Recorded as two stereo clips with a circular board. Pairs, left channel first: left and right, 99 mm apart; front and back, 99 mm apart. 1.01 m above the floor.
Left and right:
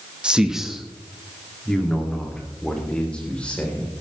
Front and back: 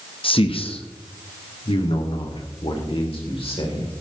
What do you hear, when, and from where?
0.2 s a man speaking: 10° right, 1.0 m; by 3.9 s 15° left, 3.5 m